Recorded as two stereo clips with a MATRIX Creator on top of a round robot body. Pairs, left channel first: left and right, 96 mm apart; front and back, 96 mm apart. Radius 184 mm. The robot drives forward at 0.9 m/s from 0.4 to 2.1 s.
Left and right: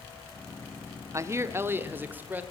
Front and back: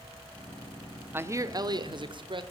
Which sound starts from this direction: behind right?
A man speaking, at 1.1 s.